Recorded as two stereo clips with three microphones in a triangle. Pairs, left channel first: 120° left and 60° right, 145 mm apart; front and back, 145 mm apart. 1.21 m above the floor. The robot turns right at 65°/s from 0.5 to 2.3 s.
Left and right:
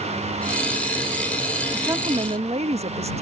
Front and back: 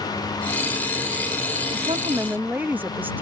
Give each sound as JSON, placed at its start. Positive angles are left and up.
{"t": 1.7, "sound": "a woman speaking", "azimuth_deg": -140}